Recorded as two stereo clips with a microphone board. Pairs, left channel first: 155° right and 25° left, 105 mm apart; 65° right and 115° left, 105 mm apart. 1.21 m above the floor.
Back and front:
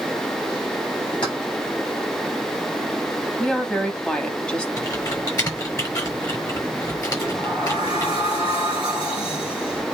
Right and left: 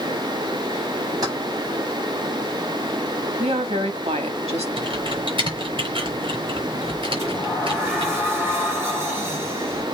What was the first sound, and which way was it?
Keys jangling, 165° left.